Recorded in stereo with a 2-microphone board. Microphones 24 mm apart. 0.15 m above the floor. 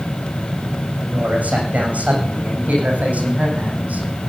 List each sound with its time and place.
1.0 s a man speaking: 80° right, 8.5 m